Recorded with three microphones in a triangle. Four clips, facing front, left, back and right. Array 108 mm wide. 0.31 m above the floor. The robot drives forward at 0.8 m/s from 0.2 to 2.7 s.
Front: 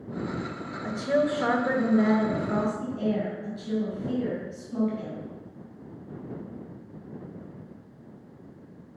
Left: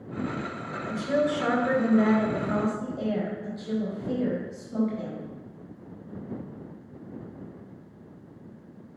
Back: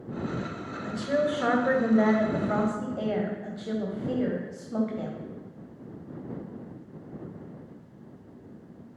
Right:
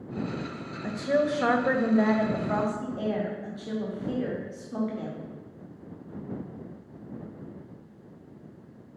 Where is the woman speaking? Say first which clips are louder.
Even, front 2 dB; 40° right, 1.2 m; by 5.2 s 160° right, 1.5 m.